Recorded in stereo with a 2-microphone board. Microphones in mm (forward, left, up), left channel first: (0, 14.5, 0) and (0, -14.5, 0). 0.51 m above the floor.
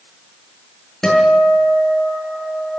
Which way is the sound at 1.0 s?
15° left (ahead or behind).